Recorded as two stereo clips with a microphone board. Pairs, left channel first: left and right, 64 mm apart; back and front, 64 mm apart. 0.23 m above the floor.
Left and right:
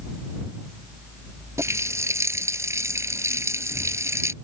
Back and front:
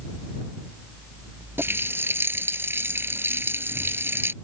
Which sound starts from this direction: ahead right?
A running tap, at 1.6 s.